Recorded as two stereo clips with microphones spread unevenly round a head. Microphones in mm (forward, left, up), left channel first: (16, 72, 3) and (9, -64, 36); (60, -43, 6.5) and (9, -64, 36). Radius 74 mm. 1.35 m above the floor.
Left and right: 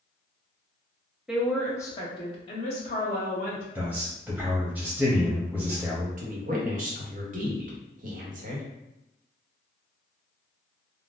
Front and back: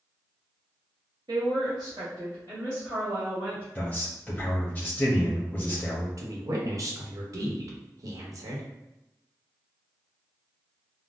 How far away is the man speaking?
About 0.7 m.